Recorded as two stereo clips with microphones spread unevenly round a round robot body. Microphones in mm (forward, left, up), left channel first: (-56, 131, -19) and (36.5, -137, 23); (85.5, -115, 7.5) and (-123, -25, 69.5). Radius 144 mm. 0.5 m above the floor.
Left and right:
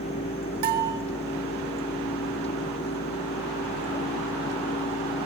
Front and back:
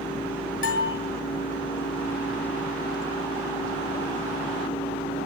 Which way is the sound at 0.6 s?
45° right.